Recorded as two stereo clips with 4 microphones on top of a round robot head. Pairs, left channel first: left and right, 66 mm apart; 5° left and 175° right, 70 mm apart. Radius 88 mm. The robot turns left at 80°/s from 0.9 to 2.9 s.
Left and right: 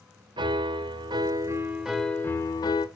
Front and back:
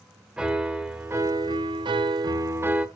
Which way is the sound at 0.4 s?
95° right.